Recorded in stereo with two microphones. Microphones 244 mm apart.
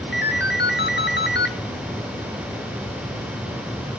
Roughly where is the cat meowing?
No cat meowing in this recording.